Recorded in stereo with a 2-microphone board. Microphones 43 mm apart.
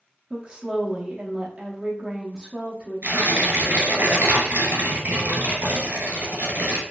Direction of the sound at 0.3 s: 20° right (ahead or behind).